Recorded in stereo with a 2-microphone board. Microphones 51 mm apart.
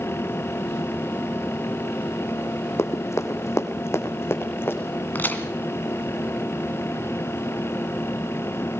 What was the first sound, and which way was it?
Running footsteps, 60° left (ahead or behind).